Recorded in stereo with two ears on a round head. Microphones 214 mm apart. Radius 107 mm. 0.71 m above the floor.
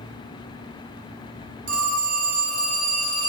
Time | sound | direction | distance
1.7 | a phone ringing | 45° right (ahead or behind) | 0.7 m